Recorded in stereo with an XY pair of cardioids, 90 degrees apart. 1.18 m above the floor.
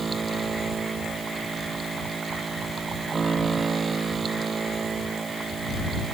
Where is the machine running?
40° right.